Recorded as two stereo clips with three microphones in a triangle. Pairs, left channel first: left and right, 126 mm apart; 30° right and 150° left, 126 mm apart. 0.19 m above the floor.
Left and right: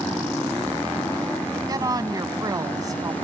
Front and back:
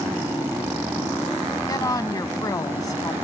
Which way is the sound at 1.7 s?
60° right.